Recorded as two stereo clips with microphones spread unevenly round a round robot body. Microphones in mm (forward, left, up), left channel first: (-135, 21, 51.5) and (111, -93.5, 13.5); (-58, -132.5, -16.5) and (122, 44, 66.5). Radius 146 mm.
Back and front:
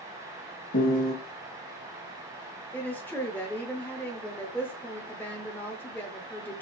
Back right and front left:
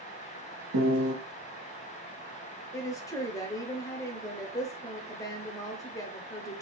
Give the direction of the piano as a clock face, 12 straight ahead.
9 o'clock.